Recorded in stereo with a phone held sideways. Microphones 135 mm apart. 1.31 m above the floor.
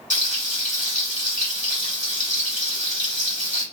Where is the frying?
65° left (ahead or behind), 1.8 m.